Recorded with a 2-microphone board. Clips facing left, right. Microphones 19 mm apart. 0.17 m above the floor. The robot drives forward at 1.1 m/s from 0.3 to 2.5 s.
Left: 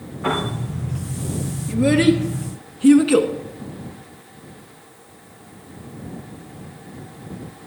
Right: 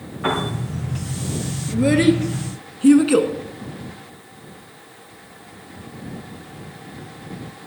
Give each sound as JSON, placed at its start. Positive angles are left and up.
{"t": 0.2, "sound": "a piano", "side_deg": -45, "distance_m": 7.5}
{"t": 1.7, "sound": "a child speaking", "side_deg": 0, "distance_m": 1.8}